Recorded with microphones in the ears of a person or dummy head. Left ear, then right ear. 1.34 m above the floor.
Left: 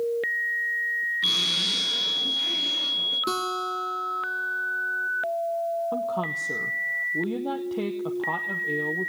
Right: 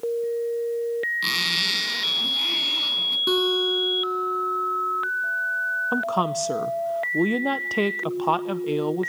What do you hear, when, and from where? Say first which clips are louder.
1.2 s a zipper: even; 30° right (ahead or behind), 4 m
3.3 s a guitar: right 6 dB; 5° left (ahead or behind), 2.0 m
5.9 s a woman speaking: right 4 dB; 60° right (ahead or behind), 0.7 m